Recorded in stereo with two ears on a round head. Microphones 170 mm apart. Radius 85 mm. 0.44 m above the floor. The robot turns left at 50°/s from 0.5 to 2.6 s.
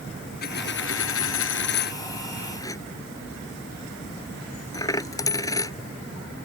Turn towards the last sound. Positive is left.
turn(degrees=20)  # may be behind; listen again after turning